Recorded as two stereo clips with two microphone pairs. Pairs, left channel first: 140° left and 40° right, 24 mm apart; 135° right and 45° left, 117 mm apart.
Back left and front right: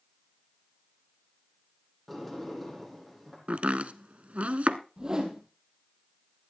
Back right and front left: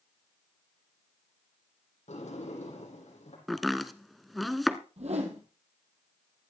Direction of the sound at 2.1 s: 135° right.